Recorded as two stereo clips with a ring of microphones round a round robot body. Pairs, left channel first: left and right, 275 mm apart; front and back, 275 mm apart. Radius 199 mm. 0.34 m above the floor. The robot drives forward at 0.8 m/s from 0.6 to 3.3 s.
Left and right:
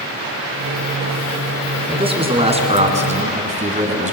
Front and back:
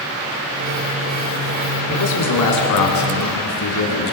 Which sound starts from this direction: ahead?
A man speaking, at 1.9 s.